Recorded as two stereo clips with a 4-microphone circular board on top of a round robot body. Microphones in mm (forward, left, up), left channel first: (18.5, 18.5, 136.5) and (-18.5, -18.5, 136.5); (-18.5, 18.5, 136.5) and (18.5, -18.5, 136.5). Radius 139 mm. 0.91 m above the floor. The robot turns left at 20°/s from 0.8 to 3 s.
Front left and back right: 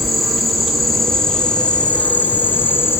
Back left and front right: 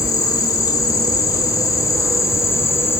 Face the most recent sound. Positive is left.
turn(degrees=95)